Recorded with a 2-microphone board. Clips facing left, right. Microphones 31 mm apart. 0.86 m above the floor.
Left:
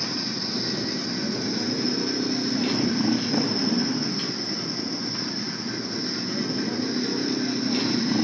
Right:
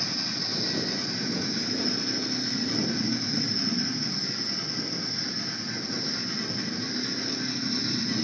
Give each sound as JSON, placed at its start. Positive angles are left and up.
{"t": 0.0, "sound": "a motorcycle", "side_deg": 55}